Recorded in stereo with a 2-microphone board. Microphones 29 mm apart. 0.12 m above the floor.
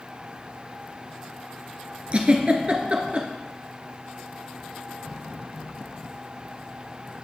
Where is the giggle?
40° right (ahead or behind), 1.1 m.